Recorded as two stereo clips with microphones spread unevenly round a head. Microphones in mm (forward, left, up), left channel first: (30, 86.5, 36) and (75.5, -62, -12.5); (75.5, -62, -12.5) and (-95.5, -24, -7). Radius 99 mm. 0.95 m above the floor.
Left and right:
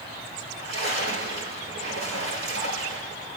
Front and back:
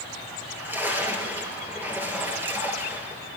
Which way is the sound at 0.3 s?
115° right.